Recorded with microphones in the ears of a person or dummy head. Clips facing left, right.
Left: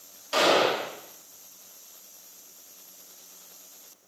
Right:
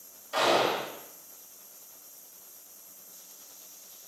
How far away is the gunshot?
About 4 m.